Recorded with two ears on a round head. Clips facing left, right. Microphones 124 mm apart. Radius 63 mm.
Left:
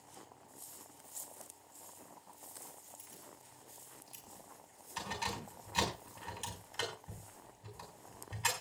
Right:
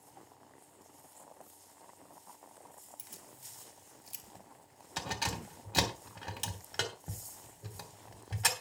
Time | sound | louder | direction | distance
3.0 | keys jangling | even | 70° right (ahead or behind) | 3 m